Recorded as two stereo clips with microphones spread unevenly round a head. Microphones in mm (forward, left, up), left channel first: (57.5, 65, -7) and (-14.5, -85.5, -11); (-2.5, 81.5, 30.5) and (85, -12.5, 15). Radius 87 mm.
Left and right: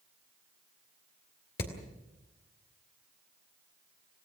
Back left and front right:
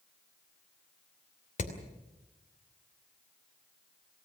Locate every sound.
1.6 s hammering: 105° left, 3 m